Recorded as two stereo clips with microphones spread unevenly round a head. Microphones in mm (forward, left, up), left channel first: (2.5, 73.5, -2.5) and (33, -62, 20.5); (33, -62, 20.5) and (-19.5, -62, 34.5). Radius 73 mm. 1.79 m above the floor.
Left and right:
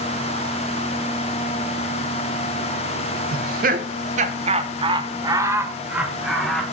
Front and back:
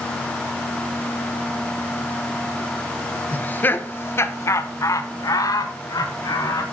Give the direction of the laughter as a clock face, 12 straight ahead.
2 o'clock.